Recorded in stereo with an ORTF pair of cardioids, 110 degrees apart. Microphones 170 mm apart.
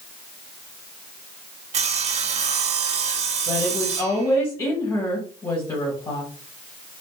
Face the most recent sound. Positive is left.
turn(degrees=15)